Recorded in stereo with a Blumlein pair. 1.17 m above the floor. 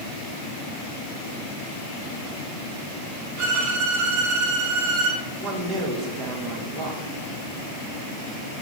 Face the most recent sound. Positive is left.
turn(degrees=-35)